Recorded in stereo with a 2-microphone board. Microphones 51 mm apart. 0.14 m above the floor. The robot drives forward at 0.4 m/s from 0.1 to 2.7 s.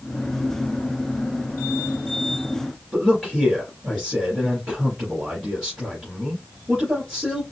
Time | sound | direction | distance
2.9 | a man speaking | 10° right (ahead or behind) | 2.5 m